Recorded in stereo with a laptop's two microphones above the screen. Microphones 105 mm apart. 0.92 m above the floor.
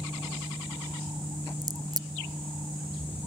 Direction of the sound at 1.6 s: 40° right (ahead or behind).